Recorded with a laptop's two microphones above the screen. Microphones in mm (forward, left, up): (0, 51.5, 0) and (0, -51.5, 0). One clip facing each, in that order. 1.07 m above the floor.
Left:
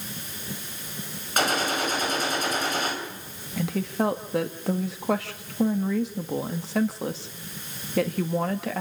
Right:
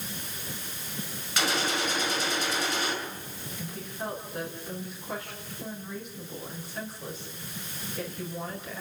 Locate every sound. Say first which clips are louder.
1.4 s a gunshot: left 4 dB; 45° left (ahead or behind), 5 m
3.6 s a woman speaking: left 13 dB; 75° left (ahead or behind), 1.7 m